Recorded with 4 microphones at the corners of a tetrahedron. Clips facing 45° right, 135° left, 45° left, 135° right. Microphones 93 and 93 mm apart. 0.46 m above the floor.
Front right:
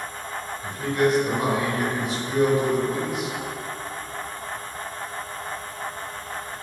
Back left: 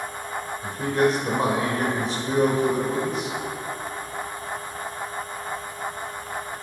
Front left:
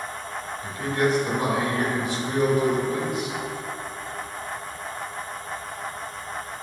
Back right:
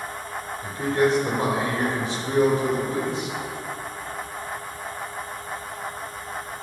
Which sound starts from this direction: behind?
A man speaking, at 0.6 s.